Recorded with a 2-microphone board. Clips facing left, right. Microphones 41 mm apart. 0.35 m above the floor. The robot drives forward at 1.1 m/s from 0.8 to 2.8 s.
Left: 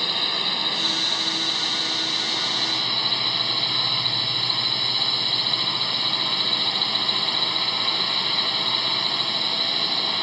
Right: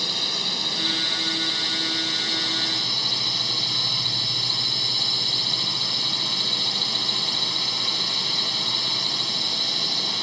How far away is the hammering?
I don't hear hammering.